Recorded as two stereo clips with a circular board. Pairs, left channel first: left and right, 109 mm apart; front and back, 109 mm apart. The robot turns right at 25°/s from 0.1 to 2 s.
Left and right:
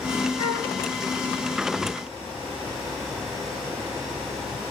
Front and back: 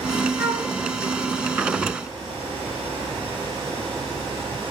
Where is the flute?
110° right, 8.5 m; by 0.7 s 100° right, 8.5 m.